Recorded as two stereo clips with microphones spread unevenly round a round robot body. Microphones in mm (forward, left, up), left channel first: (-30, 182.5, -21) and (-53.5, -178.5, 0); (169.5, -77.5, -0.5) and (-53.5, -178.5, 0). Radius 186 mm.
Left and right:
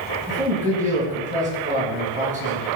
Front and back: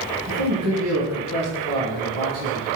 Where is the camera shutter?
No camera shutter in this recording.